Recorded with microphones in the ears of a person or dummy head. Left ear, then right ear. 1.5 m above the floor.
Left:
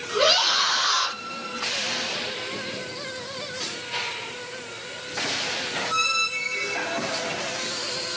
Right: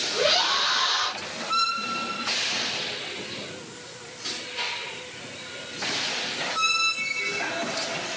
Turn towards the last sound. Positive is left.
turn(degrees=40)  # may be behind; listen again after turning